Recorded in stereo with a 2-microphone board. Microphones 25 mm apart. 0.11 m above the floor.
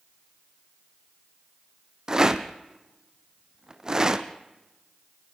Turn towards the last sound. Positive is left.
turn(degrees=-25)  # may be behind; listen again after turning